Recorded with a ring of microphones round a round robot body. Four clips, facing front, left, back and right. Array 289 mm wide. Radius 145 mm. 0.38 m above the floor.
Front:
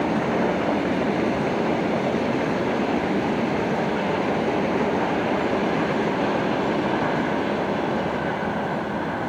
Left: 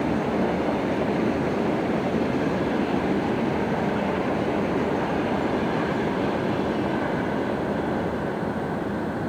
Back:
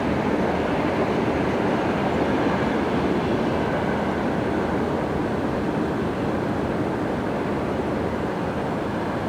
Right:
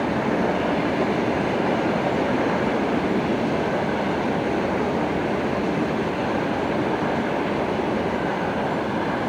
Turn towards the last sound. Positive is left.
No sound to turn to.